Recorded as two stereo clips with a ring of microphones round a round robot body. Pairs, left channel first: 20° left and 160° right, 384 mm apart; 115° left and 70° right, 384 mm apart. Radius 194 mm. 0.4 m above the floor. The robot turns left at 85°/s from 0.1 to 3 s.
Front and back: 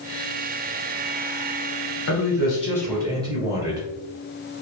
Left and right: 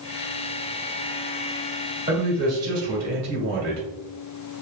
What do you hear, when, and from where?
2.1 s a man speaking: straight ahead, 1.4 m; by 3.9 s 80° right, 1.4 m